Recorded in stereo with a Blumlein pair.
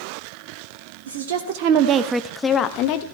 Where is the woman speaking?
60° right, 1.3 m; by 3.0 s 45° left, 1.1 m.